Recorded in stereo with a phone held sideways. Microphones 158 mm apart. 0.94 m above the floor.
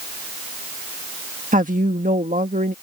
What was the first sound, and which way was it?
A woman speaking, 55° right (ahead or behind).